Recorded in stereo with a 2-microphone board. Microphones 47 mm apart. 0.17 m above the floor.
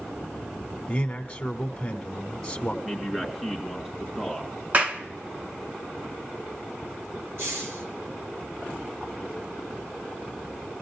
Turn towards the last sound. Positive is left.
turn(degrees=-65)  # may be behind; listen again after turning